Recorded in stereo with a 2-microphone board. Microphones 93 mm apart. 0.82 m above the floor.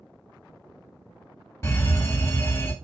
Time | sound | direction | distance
1.6 | a fire alarm | 30° left (ahead or behind) | 2.5 m